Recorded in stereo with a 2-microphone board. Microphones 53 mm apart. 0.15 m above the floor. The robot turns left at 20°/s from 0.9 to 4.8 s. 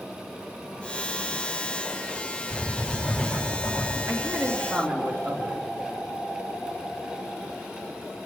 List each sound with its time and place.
2.5 s writing: 20° right (ahead or behind), 6 m; by 4.0 s 10° left (ahead or behind), 6 m
4.1 s a man speaking: 65° right (ahead or behind), 3.5 m